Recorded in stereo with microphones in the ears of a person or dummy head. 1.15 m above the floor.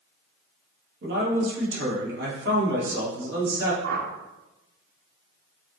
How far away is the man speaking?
About 1.8 m.